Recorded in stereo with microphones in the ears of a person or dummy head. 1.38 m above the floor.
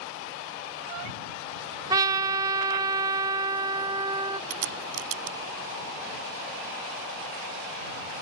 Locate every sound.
1.9 s a trumpet: 25° right (ahead or behind)
4.5 s a crack: 75° right (ahead or behind)